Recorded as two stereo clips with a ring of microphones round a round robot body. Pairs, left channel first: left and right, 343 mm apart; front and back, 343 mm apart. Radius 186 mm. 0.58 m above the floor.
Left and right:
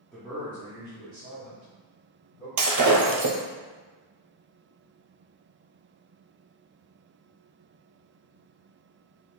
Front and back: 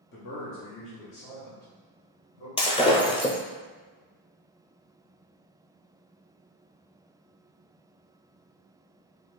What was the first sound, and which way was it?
A man speaking, 10° left.